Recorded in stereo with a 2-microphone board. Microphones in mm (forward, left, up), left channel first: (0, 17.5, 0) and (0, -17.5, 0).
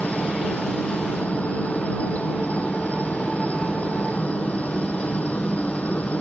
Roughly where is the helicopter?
Left.